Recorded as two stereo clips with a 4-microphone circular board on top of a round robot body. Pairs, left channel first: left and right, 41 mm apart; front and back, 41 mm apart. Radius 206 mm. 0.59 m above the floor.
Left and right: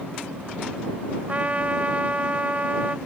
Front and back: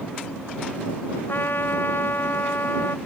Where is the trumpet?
35° right.